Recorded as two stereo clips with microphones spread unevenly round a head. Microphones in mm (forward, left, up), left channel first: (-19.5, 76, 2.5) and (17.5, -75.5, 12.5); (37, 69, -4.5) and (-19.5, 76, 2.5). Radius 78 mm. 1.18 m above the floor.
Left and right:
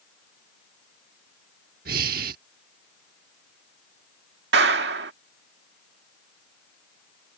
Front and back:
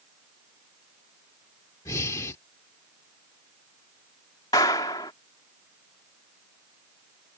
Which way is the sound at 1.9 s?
60° right.